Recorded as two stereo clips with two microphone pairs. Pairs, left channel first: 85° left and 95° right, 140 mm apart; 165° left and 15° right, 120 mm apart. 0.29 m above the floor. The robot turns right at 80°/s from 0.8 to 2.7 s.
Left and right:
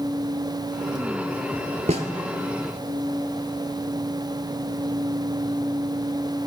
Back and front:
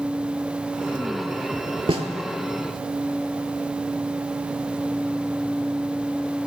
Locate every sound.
1.9 s a snare drum: 55° right, 0.9 m; by 2.1 s 45° right, 0.9 m